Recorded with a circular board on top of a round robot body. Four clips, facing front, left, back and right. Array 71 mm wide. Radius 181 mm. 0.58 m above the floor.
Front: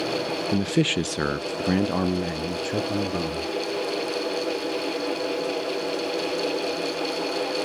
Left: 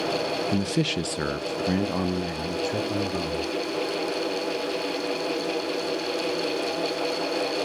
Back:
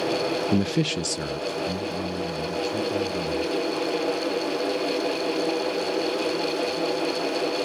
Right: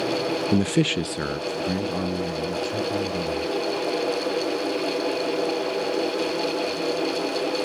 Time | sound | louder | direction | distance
0.5 | a man speaking | right 7 dB, front 1 dB | 115° right | 0.6 m